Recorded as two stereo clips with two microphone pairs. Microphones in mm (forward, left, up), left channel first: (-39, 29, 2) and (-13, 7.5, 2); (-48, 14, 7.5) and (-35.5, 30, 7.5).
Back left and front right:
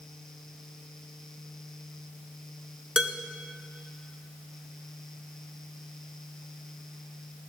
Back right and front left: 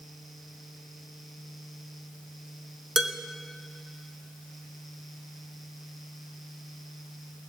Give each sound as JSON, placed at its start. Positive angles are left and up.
{"t": 3.0, "sound": "dishes clattering", "azimuth_deg": 5, "distance_m": 0.8}